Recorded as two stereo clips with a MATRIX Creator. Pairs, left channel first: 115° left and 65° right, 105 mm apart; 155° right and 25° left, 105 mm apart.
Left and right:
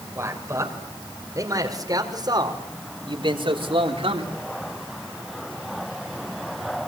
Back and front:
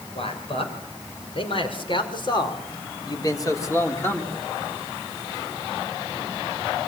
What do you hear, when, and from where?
0.1 s a man speaking: 135° right, 6.5 m; by 4.4 s 85° right, 4 m